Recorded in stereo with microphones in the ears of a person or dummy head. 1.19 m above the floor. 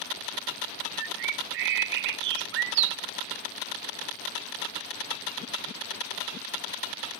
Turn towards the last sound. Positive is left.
turn(degrees=-65)  # may be behind; listen again after turning